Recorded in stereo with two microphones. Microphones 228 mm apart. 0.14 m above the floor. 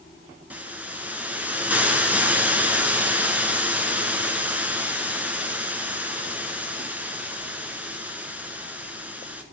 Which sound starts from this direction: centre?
A hiss, at 0.5 s.